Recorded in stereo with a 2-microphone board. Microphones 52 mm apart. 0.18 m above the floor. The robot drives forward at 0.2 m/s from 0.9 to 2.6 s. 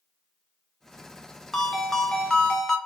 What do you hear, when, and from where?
1.5 s a ringtone: 10° left (ahead or behind), 0.7 m